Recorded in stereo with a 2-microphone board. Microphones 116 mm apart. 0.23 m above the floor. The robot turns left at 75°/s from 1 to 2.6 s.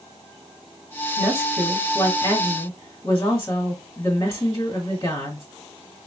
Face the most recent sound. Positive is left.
turn(degrees=105)